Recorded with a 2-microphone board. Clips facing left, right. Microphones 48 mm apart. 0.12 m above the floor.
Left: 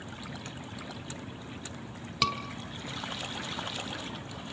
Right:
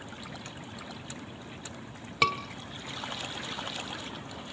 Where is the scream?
20° right (ahead or behind), 1.1 m.